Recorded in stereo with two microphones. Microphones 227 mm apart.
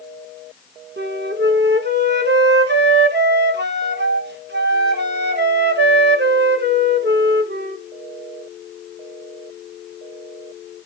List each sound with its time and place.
1.0 s a flute: 50° right (ahead or behind), 1.1 m